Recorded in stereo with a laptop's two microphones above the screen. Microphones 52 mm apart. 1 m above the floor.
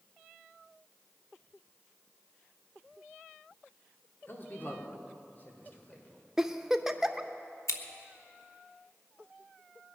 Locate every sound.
4.3 s a man speaking: 45° left (ahead or behind), 2.5 m; by 6.2 s 40° left (ahead or behind), 4 m
6.4 s a giggle: 10° right (ahead or behind), 0.6 m
7.7 s scissors: 70° left (ahead or behind), 1.0 m